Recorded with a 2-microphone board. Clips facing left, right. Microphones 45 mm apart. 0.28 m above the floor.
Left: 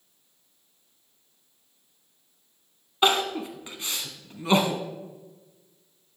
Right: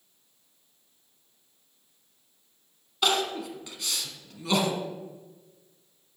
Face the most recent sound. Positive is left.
turn(degrees=30)  # may be behind; listen again after turning